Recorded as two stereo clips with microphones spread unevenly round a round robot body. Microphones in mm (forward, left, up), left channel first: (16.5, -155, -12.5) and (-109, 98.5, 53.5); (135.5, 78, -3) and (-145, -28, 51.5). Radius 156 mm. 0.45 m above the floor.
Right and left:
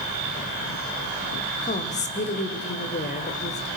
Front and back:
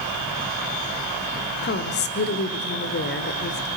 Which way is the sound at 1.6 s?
15° right.